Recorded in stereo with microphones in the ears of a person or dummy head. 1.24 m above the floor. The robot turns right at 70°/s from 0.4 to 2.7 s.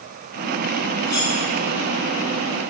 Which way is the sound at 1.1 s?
60° left (ahead or behind).